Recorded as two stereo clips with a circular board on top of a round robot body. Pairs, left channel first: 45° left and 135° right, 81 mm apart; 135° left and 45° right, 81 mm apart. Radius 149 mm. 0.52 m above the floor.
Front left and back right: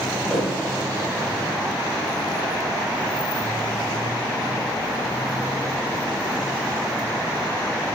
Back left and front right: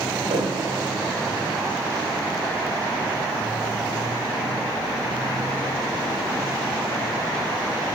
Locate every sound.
0.3 s a thud: 35° right, 6.5 m